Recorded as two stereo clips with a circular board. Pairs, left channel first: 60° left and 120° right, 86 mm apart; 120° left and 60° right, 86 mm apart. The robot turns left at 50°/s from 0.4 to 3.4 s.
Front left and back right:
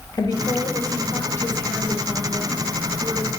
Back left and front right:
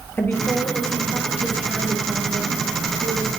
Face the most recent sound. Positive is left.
turn(degrees=-90)